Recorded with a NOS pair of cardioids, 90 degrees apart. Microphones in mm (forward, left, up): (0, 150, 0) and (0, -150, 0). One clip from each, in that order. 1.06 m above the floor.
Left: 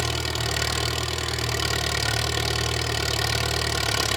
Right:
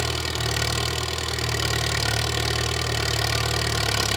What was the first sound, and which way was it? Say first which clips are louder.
An engine running: even; 5° left.